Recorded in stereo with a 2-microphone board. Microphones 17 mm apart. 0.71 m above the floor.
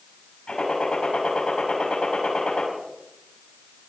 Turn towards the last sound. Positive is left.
turn(degrees=75)  # may be behind; listen again after turning